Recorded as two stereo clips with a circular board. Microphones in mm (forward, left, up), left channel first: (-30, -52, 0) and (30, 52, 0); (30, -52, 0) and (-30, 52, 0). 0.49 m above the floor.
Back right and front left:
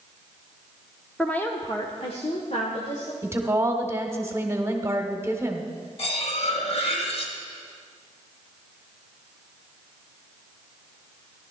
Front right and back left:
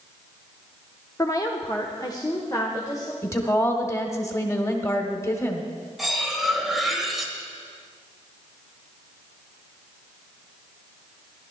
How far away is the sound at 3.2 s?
About 1.3 m.